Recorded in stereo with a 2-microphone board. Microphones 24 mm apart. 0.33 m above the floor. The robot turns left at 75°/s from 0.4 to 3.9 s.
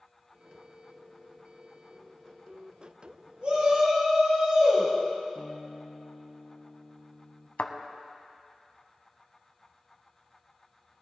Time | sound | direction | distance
3.4 | a shout | 75° right | 2.5 m
5.3 | a guitar | 35° left (ahead or behind) | 2 m
7.6 | a thud | 75° left (ahead or behind) | 0.9 m